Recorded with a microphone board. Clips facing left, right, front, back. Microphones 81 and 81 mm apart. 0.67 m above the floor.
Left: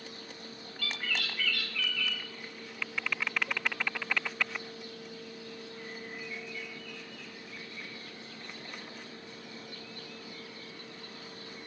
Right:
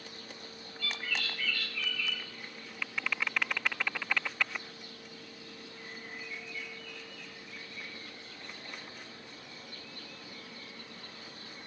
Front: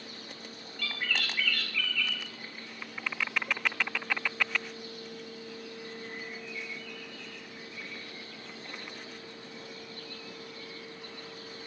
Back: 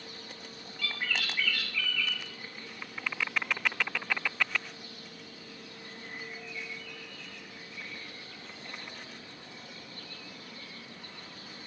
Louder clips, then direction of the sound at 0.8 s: Left 1 dB, even; 95° left.